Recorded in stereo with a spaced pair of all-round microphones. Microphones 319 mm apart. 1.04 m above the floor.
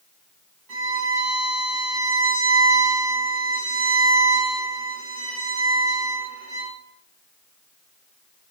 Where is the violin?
75° right (ahead or behind), 3 m.